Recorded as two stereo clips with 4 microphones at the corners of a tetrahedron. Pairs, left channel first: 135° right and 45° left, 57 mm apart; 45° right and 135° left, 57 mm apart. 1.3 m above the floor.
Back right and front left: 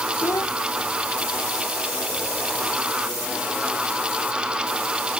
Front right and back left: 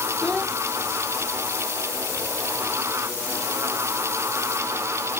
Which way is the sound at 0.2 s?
120° right.